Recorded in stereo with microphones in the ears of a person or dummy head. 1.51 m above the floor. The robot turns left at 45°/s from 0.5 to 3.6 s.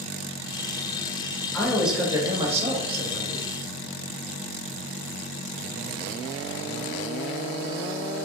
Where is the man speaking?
10° left, 1.0 m; by 3.5 s 75° right, 1.0 m.